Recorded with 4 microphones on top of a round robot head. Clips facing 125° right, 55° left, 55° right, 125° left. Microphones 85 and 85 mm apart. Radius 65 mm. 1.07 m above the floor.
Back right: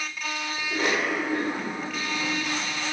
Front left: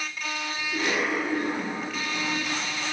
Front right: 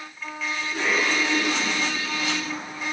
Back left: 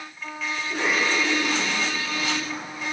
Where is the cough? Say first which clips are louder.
Back right 1 dB, even; 175° right, 6 m.